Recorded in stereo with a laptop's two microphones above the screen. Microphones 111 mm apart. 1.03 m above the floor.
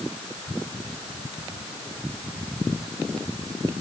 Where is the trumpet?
I don't hear a trumpet.